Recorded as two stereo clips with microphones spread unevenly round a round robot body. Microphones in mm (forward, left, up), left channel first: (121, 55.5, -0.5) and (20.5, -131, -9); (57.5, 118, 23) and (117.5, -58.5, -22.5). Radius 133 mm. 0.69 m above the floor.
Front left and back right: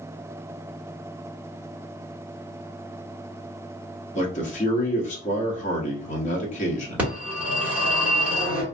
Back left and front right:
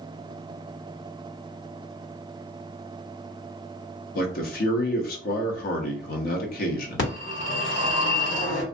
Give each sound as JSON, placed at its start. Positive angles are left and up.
{"t": 4.2, "sound": "a man speaking", "azimuth_deg": 100, "distance_m": 0.8}
{"t": 7.0, "sound": "a phone ringing", "azimuth_deg": 155, "distance_m": 1.3}